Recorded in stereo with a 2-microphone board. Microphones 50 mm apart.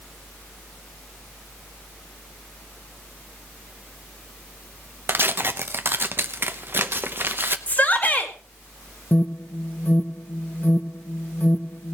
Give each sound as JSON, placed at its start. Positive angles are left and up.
{"t": 5.1, "sound": "tearing paper", "side_deg": -45, "distance_m": 0.8}
{"t": 7.7, "sound": "a shout", "side_deg": 30, "distance_m": 2.0}
{"t": 9.1, "sound": "an alarm", "side_deg": 45, "distance_m": 0.8}